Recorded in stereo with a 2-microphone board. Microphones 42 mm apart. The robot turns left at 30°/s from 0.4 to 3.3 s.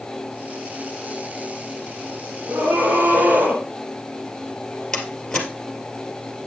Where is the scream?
60° right (ahead or behind), 4 m; by 3.6 s 40° right (ahead or behind), 4 m.